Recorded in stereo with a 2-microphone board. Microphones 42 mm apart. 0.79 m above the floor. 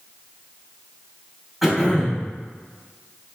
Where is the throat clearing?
Centre (ahead or behind), 3 m.